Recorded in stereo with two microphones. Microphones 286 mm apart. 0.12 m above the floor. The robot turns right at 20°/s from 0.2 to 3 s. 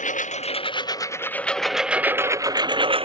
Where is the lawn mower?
25° left (ahead or behind); by 3.0 s 20° right (ahead or behind).